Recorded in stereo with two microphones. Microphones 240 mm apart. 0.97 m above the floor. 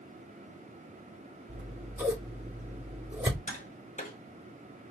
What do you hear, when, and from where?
1.5 s scissors: 10° right (ahead or behind), 2.5 m
3.5 s tapping: 35° left (ahead or behind), 1.7 m